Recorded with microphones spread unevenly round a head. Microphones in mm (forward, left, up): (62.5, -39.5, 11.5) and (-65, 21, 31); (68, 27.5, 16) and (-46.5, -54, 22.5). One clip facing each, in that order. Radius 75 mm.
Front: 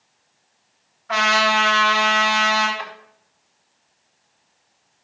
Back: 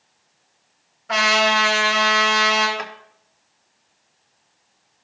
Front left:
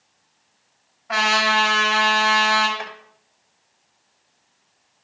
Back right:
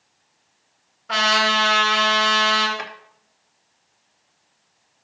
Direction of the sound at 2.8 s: 170° right.